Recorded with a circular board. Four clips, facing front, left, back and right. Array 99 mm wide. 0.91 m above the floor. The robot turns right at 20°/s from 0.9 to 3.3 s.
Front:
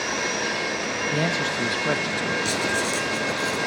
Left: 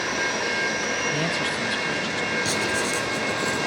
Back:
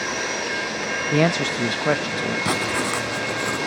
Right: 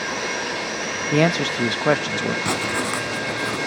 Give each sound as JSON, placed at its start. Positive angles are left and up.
{"t": 1.1, "sound": "a man speaking", "azimuth_deg": -125, "distance_m": 0.7}
{"t": 2.5, "sound": "writing", "azimuth_deg": -145, "distance_m": 3.5}